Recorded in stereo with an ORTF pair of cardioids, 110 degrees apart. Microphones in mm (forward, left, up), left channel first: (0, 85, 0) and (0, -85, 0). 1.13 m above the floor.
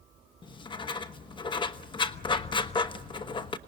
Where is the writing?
30° left, 1.1 m.